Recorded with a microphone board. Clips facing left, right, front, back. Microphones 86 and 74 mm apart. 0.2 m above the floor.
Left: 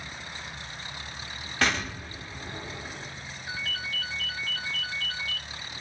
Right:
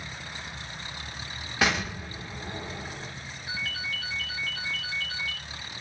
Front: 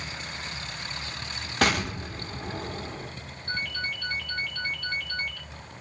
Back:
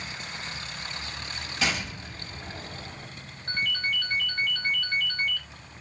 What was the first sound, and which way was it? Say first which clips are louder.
An explosion: right 1 dB, front 5 dB; 10° right.